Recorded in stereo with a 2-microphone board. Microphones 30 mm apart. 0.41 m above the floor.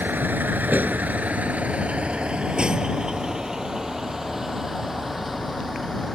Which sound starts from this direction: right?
A vehicle, at 0.0 s.